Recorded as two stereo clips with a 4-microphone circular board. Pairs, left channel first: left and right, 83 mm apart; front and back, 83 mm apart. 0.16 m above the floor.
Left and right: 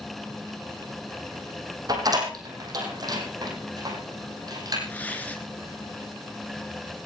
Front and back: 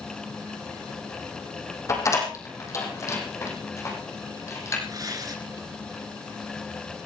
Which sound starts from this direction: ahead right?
A door slam, at 1.9 s.